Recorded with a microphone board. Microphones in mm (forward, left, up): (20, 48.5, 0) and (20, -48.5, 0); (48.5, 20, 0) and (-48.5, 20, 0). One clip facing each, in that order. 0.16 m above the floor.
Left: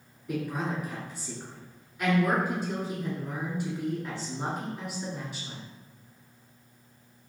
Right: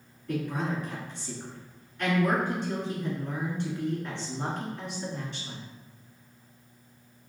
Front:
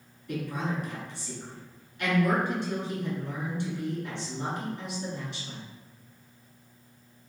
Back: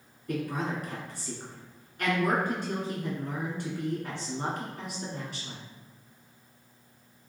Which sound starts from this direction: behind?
A woman speaking, at 0.3 s.